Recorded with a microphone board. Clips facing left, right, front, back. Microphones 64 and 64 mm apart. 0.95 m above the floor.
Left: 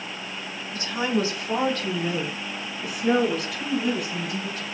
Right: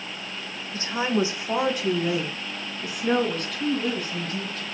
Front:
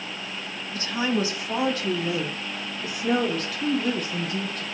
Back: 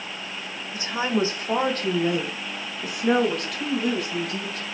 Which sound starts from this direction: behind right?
A woman speaking, at 0.7 s.